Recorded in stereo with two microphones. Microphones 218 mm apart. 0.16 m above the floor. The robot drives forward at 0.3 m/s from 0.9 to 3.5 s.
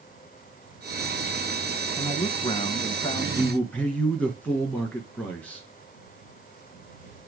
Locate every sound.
2.0 s a man speaking: 25° left (ahead or behind), 1.1 m
3.4 s a man speaking: 5° left (ahead or behind), 1.8 m